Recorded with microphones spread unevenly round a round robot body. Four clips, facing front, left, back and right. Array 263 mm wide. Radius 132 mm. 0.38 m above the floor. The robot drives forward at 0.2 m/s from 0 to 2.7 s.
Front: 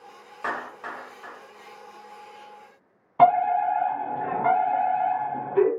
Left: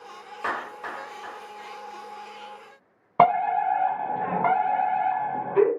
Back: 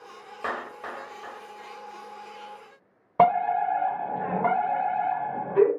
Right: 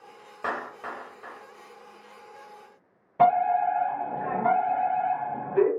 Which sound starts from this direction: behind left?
A fire alarm, at 3.2 s.